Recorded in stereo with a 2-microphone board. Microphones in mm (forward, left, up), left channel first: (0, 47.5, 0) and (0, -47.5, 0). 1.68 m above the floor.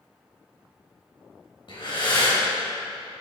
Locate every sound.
1.7 s breathing: 55° left (ahead or behind), 2.5 m